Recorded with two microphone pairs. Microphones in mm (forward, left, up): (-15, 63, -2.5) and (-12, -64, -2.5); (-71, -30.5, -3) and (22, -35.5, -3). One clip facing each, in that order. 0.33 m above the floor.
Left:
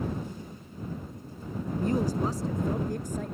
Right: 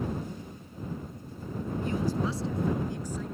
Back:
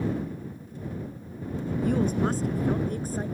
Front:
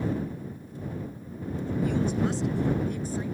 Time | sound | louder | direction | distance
1.7 | a woman speaking | left 3 dB, back 2 dB | 135° left | ?